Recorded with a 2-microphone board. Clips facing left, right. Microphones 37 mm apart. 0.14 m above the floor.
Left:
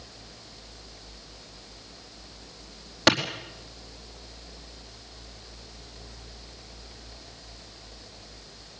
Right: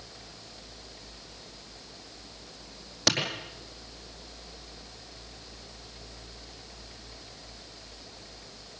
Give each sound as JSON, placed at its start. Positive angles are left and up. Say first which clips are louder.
{"t": 3.1, "sound": "a clap", "louder": "left 6 dB", "side_deg": 35, "distance_m": 4.0}